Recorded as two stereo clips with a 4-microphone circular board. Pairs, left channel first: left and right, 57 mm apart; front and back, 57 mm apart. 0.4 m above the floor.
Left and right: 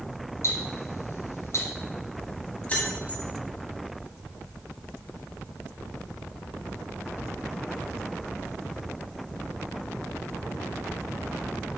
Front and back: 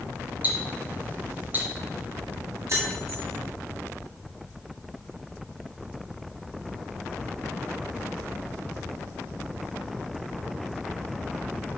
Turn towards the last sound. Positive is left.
turn(degrees=155)